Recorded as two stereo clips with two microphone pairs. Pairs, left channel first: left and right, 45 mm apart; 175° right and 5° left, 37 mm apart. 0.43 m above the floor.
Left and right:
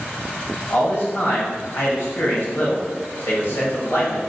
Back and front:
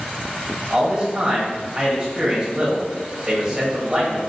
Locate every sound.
0.7 s a man speaking: 70° left, 1.9 m